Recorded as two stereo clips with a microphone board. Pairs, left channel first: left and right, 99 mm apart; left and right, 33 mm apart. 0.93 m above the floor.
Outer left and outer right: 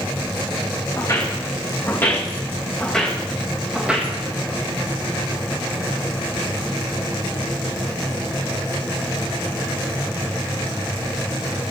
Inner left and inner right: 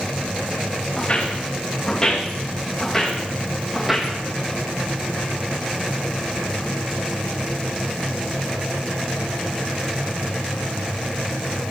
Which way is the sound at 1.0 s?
30° left (ahead or behind).